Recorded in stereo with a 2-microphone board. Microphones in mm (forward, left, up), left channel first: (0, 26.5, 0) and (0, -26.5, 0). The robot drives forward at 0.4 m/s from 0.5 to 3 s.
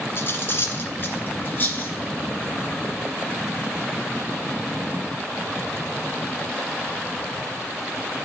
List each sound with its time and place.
0.2 s cutlery clinking: 45° left (ahead or behind), 1.5 m; by 1.9 s 35° left (ahead or behind), 1.9 m